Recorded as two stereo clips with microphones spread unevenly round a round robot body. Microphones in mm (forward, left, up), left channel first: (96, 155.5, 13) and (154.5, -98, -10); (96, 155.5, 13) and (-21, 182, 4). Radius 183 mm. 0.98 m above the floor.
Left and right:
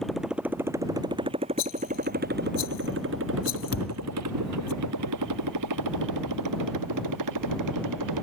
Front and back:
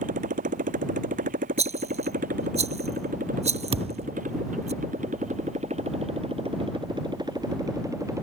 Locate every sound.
0.0 s a motorcycle: 165° right; by 8.2 s 110° right
1.6 s a rattle: 145° left
3.7 s a thud: 140° left